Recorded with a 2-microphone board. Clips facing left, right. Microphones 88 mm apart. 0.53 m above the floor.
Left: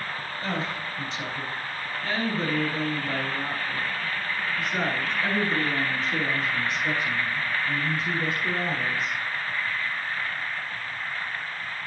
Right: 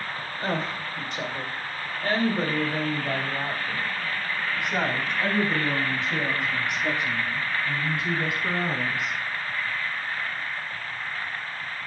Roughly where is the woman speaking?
Right.